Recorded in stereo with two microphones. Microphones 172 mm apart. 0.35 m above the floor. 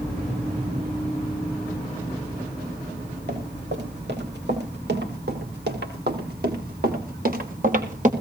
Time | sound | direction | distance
3.3 | running footsteps | 85° right | 7 m